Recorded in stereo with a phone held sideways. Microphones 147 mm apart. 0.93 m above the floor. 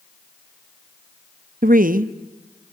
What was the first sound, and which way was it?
A woman speaking, 70° right (ahead or behind).